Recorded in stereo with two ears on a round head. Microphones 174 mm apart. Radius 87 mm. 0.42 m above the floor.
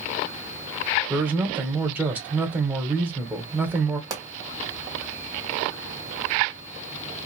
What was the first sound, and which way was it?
A man speaking, 10° right (ahead or behind).